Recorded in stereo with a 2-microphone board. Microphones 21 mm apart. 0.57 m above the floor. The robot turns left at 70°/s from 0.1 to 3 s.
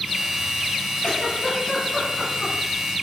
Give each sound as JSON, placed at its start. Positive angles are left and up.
{"t": 1.0, "sound": "a giggle", "side_deg": 40, "distance_m": 1.7}